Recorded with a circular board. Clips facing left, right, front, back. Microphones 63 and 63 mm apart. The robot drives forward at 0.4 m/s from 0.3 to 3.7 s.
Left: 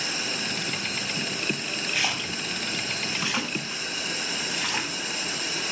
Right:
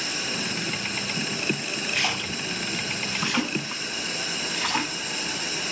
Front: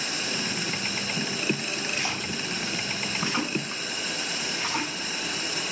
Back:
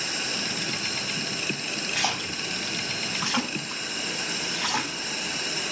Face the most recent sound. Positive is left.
turn(degrees=175)